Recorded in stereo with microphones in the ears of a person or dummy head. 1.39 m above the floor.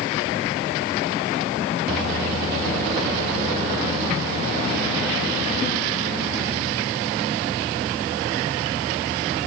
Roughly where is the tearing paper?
I don't hear tearing paper.